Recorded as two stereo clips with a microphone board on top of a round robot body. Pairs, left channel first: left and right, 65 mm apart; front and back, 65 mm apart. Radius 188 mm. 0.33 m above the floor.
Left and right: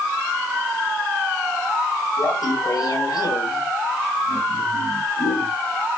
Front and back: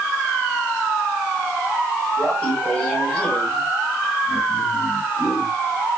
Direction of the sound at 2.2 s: 70° left.